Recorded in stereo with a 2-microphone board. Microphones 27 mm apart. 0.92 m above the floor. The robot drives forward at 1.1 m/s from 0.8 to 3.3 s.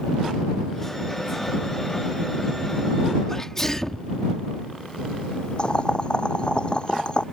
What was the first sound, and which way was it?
A sneeze, 15° left (ahead or behind).